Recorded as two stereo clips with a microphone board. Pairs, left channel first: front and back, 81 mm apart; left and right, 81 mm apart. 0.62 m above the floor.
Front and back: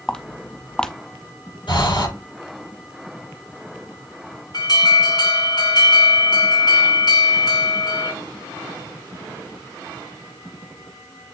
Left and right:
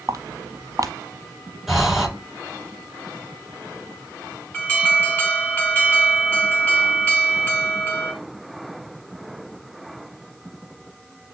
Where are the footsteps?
75° right, 0.9 m.